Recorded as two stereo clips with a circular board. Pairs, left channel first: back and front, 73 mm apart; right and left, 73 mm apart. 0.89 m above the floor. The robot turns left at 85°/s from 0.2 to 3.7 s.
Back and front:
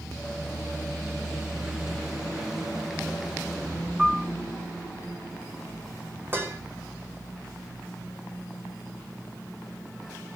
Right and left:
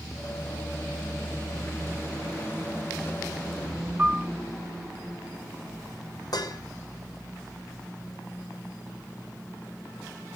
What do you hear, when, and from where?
4.0 s a piano: 70° left, 0.5 m
6.3 s dishes clattering: 60° right, 2.5 m